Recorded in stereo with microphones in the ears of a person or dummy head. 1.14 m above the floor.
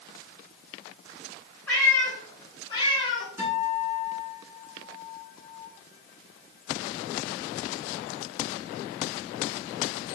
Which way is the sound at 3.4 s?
20° right (ahead or behind).